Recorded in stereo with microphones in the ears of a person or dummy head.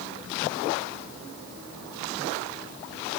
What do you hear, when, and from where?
Only background noise.